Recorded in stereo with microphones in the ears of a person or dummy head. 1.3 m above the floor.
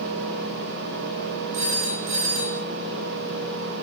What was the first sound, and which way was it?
A phone ringing, 35° right (ahead or behind).